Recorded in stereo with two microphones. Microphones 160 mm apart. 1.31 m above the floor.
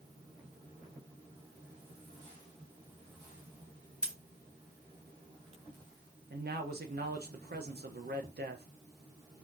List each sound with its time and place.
4.0 s scissors: 55° right (ahead or behind), 2.5 m
6.3 s a man speaking: 70° right (ahead or behind), 0.8 m